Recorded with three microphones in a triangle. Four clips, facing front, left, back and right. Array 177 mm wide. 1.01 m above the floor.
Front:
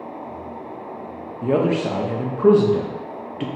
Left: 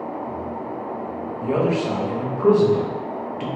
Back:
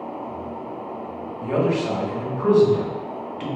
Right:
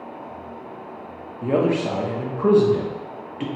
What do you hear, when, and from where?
1.4 s a man speaking: 30° right, 0.7 m